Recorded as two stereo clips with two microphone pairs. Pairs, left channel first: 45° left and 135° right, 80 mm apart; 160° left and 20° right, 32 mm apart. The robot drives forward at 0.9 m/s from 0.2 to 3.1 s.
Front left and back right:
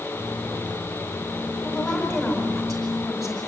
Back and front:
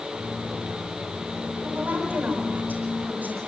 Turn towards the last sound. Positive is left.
turn(degrees=-45)